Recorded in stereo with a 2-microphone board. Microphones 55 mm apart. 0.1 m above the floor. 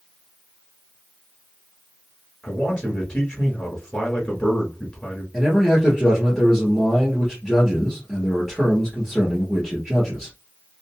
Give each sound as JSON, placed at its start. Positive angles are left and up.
{"t": 2.4, "sound": "a man speaking", "side_deg": 15, "distance_m": 1.5}
{"t": 5.3, "sound": "a man speaking", "side_deg": 5, "distance_m": 1.7}